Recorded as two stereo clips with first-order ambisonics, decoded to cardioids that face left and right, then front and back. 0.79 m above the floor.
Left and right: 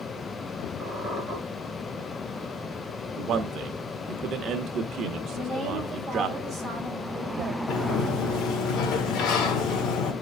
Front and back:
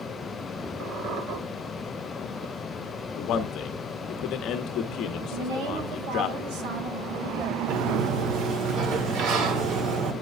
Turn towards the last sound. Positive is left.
turn(degrees=135)